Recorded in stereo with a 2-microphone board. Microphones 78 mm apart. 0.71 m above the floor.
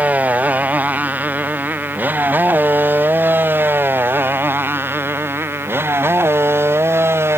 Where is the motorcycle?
20° right (ahead or behind); by 7.4 s 35° right (ahead or behind).